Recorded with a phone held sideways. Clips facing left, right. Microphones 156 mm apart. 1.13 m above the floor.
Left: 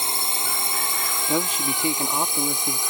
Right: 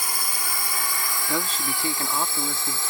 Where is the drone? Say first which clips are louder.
Left 2 dB; 25° left (ahead or behind); by 2.9 s 15° left (ahead or behind).